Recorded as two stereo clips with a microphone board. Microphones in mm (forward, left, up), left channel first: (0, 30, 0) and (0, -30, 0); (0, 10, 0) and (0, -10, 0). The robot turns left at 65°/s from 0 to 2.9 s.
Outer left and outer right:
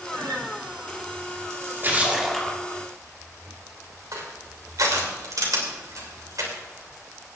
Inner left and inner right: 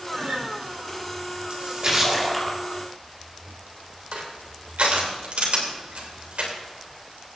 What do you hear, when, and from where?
0.1 s a guitar: 85° right, 5 m; by 0.5 s 65° right (ahead or behind), 5 m
1.5 s a splash: 125° right, 2 m; by 2.6 s 165° left, 2 m
4.1 s crushing: 70° right (ahead or behind), 3 m